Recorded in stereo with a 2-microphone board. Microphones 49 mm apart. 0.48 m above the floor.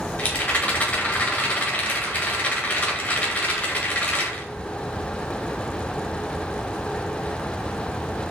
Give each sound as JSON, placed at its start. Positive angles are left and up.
{"t": 0.2, "sound": "a rattle", "side_deg": 35, "distance_m": 1.0}